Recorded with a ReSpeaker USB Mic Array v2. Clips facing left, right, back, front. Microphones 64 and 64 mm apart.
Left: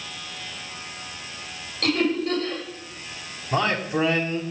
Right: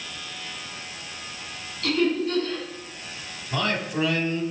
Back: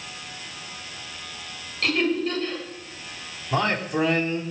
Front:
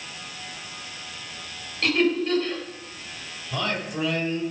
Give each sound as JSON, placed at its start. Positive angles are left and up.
{"t": 1.8, "sound": "laughter", "azimuth_deg": 80, "distance_m": 6.5}
{"t": 3.5, "sound": "a man speaking", "azimuth_deg": 135, "distance_m": 1.9}